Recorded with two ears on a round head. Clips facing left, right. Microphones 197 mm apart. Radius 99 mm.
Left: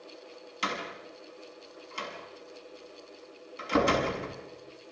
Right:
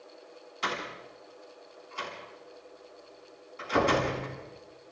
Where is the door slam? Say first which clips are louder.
Even; 45° left (ahead or behind), 6 m.